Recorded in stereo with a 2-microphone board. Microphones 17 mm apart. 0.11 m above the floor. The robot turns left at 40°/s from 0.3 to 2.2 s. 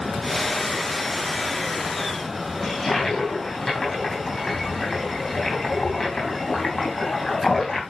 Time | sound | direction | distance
2.6 | a toilet flushing | 20° left (ahead or behind) | 4.5 m